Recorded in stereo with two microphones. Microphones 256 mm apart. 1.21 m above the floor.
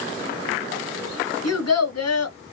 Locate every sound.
1.4 s a child speaking: 85° left, 1.2 m